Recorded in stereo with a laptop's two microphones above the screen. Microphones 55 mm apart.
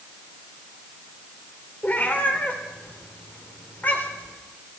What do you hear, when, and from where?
1.8 s a cat meowing: 35° left (ahead or behind), 2 m